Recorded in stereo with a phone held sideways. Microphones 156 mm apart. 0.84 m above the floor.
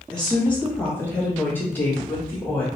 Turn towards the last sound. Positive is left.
turn(degrees=10)  # may be behind; listen again after turning